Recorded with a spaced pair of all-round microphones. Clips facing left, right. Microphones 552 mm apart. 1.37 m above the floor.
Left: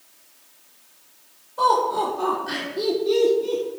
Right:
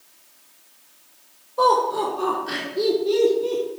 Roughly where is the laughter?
Centre.